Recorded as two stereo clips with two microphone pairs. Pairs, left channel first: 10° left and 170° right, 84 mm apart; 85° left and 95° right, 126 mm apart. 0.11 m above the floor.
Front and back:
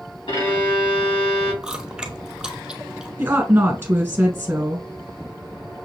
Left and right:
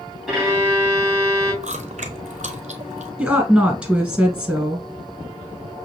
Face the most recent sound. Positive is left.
turn(degrees=-170)